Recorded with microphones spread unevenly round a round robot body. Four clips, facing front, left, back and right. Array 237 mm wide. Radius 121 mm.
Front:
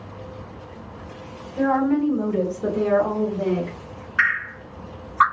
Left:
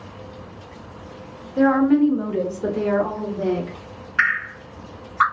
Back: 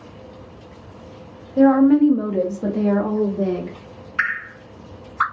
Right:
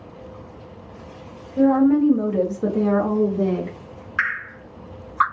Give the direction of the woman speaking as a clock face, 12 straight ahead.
7 o'clock.